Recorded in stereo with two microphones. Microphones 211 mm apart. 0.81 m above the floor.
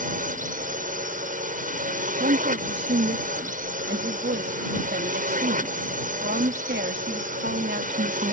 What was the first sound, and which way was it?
A drone, 40° right (ahead or behind).